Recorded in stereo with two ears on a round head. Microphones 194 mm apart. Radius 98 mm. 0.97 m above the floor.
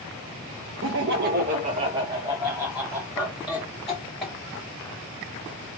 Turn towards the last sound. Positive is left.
turn(degrees=10)  # may be behind; listen again after turning